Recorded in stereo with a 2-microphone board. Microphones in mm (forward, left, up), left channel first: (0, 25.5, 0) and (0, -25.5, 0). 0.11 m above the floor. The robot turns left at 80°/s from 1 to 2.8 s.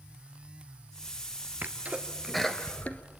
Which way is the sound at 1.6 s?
35° right (ahead or behind).